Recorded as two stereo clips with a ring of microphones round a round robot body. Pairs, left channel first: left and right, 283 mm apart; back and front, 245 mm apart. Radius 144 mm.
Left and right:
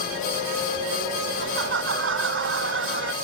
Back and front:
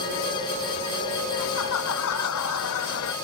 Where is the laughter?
140° right.